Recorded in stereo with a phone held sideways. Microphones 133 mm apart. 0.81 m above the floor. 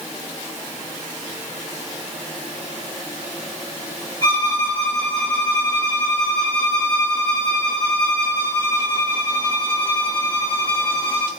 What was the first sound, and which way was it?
A violin, 20° right (ahead or behind).